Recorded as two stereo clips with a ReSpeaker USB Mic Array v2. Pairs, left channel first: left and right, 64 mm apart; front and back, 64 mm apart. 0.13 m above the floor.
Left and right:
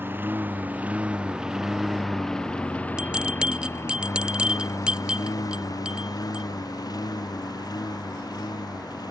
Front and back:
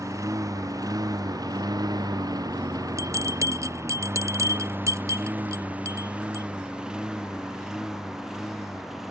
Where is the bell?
165° right.